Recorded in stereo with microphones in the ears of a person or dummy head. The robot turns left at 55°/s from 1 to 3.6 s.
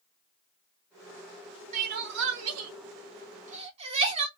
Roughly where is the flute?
I don't hear a flute.